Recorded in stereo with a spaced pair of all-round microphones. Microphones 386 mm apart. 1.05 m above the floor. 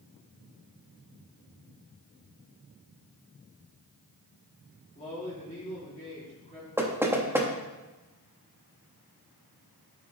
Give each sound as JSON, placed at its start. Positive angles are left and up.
{"t": 5.0, "sound": "a man speaking", "side_deg": 20, "distance_m": 2.5}
{"t": 6.8, "sound": "knocking", "side_deg": -5, "distance_m": 0.9}